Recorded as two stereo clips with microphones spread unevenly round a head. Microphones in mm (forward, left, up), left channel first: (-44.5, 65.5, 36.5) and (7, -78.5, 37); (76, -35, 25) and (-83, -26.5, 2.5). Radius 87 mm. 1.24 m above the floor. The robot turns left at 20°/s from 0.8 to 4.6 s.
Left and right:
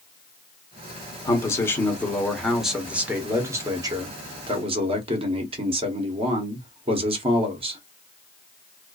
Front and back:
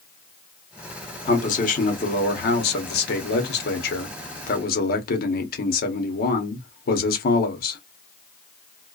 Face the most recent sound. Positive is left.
turn(degrees=-25)